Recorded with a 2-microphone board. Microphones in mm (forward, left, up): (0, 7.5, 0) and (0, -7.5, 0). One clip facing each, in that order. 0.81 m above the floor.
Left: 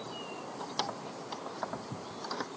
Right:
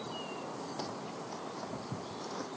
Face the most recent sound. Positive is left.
turn(degrees=90)